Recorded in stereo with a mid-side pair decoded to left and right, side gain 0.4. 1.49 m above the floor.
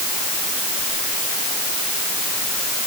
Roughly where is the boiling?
No boiling in this recording.